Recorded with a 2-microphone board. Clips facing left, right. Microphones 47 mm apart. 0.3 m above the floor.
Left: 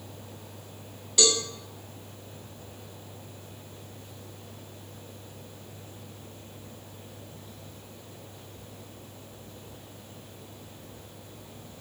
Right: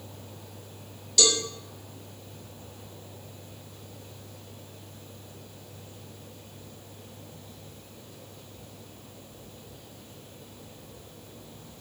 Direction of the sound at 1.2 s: 25° left (ahead or behind).